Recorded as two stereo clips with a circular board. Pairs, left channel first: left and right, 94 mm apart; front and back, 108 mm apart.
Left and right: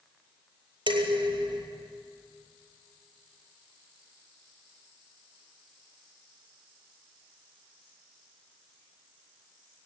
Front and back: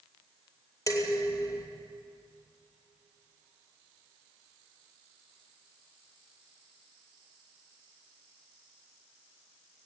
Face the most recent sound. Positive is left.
turn(degrees=-55)